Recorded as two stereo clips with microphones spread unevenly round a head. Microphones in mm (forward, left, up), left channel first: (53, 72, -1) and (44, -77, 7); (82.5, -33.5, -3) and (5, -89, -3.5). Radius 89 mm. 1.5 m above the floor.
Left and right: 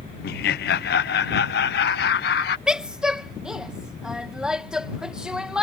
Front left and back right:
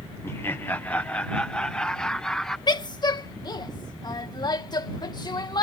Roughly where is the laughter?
Left.